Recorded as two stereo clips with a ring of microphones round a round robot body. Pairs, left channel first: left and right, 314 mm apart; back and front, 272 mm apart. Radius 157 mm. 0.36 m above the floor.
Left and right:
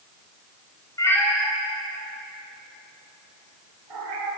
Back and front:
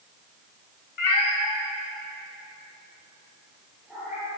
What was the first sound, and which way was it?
A cat meowing, 170° left.